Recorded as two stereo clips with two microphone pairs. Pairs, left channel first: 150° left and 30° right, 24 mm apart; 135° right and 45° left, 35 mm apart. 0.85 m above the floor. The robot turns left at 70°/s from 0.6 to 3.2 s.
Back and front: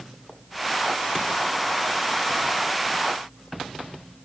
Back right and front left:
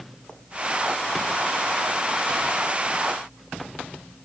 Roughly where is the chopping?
I don't hear chopping.